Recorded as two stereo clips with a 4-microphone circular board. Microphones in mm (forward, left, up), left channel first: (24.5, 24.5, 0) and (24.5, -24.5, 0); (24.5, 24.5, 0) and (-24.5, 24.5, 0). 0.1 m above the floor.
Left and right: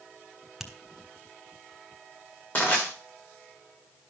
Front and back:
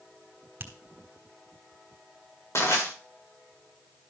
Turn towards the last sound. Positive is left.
turn(degrees=25)